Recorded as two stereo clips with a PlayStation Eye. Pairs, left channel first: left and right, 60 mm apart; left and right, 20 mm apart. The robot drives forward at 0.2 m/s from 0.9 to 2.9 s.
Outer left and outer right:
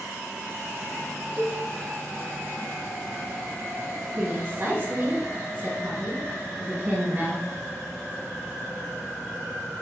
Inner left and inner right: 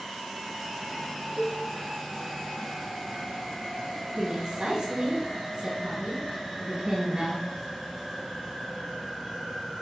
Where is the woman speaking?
35° right (ahead or behind), 1.9 m.